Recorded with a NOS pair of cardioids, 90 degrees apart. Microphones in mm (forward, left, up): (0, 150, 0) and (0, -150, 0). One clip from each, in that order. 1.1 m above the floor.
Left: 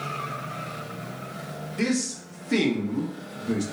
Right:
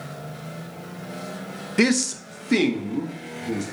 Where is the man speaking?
55° right, 0.6 m; by 3.6 s 10° left, 1.1 m.